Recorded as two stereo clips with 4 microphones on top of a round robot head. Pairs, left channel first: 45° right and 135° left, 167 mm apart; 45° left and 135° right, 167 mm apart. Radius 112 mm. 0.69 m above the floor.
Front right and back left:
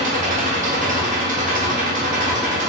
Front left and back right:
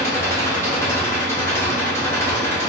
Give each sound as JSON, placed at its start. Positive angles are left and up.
{"t": 0.0, "sound": "an engine running", "azimuth_deg": 115, "distance_m": 1.1}